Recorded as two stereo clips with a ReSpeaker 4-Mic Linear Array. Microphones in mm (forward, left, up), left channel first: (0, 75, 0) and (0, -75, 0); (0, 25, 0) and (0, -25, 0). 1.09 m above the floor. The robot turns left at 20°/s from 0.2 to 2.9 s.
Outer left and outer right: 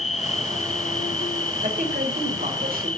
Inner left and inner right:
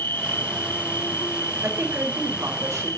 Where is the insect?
130° left, 0.7 m; by 3.0 s 75° left, 0.7 m.